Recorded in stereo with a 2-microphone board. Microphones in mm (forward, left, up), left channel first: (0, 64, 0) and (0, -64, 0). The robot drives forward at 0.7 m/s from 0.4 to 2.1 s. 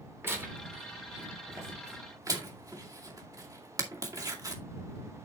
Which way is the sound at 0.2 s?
15° right (ahead or behind).